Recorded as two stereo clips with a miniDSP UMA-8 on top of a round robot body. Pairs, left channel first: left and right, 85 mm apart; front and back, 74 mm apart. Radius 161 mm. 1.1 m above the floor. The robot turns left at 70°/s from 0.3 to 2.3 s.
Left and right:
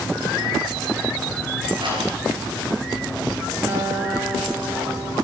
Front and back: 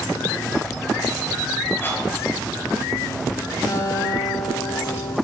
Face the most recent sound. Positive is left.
turn(degrees=-35)